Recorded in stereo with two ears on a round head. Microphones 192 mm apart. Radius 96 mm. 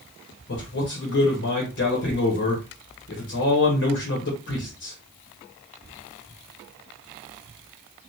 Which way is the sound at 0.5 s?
55° left (ahead or behind).